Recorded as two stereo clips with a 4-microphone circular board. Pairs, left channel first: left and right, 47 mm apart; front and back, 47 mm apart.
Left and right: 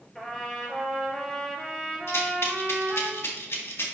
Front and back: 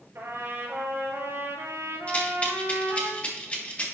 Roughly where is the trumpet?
Behind.